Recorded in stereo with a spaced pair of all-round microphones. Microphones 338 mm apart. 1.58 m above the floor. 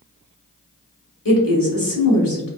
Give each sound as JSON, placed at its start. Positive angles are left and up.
{"t": 1.2, "sound": "a woman speaking", "side_deg": 75, "distance_m": 1.3}